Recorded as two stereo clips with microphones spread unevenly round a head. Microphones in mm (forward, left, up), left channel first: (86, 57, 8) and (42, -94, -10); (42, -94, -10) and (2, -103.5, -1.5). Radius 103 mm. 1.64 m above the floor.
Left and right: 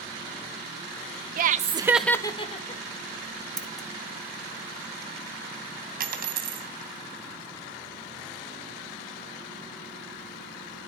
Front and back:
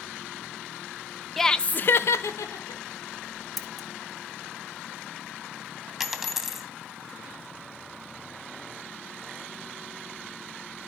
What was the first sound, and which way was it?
Laughter, 75° right.